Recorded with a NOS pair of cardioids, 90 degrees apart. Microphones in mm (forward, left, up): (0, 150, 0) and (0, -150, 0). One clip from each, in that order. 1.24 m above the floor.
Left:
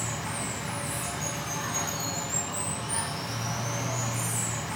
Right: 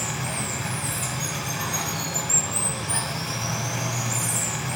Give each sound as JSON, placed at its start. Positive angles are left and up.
{"t": 0.0, "sound": "running water", "azimuth_deg": -50, "distance_m": 0.8}